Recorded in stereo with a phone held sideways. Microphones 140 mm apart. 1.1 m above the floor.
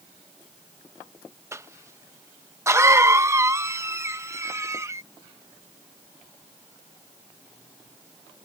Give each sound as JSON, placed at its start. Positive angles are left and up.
{"t": 1.5, "sound": "a cough", "side_deg": -20}